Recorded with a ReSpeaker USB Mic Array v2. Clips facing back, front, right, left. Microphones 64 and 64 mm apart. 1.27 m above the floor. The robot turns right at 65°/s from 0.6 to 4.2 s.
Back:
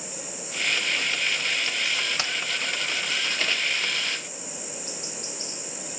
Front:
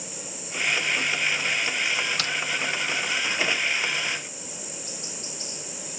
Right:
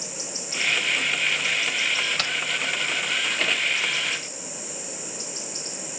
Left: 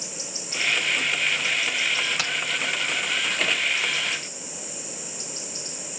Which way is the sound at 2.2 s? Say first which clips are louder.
Front 1 dB, even; 160° left.